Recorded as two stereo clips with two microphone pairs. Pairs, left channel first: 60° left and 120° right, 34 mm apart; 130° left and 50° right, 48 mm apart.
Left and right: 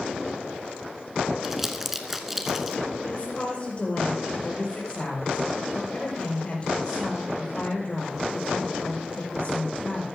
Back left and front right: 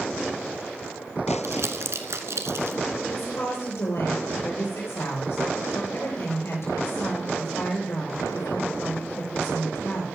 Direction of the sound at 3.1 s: 115° left.